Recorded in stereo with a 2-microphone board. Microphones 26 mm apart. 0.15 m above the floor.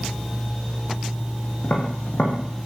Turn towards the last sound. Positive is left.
turn(degrees=60)  # may be behind; listen again after turning